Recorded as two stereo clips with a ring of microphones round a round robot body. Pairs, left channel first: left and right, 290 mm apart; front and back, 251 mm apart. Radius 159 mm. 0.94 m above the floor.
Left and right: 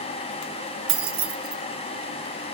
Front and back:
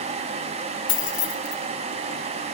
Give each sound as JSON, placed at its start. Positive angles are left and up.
{"t": 0.9, "sound": "keys jangling", "azimuth_deg": -40, "distance_m": 1.4}